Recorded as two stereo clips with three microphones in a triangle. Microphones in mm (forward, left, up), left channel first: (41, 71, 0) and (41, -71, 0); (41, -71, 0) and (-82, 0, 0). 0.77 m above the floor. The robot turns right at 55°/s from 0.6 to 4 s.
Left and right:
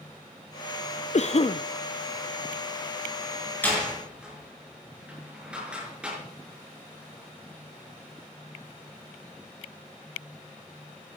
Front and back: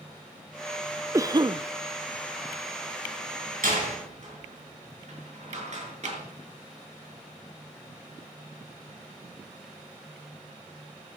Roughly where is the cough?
Left.